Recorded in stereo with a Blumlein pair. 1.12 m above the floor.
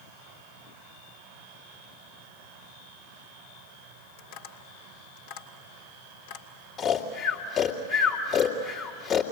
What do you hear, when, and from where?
4.2 s tapping: 50° left, 2.5 m
6.8 s snoring: 30° left, 2.5 m